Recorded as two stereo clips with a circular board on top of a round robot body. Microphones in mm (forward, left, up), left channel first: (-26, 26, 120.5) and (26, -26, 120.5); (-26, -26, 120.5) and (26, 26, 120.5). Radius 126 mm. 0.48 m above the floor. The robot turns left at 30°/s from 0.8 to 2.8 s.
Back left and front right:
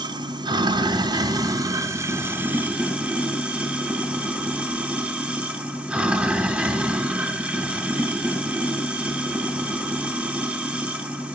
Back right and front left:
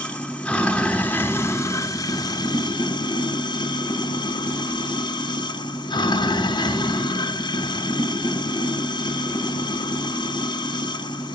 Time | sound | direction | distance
0.0 | running water | 60° right | 1.7 m